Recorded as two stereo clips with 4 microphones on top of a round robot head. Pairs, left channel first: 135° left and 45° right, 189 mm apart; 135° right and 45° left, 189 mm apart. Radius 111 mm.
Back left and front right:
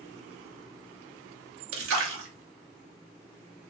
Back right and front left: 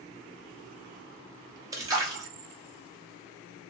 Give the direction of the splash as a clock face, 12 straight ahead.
1 o'clock.